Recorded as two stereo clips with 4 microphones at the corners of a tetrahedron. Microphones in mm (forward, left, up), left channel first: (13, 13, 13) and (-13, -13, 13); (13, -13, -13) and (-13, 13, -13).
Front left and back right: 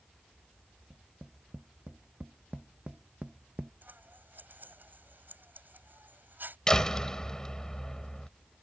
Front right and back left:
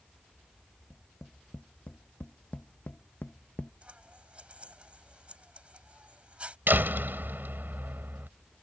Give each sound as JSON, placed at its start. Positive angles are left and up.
{"t": 0.9, "sound": "tapping", "azimuth_deg": -85}
{"t": 3.8, "sound": "scissors", "azimuth_deg": -170}
{"t": 6.7, "sound": "a door slam", "azimuth_deg": 115}